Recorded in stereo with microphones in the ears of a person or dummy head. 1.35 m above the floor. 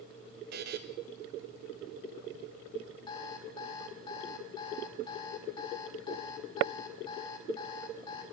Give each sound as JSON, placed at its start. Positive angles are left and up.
{"t": 0.5, "sound": "a buzzer", "side_deg": -55, "distance_m": 0.9}
{"t": 3.1, "sound": "an alarm clock", "side_deg": 25, "distance_m": 1.3}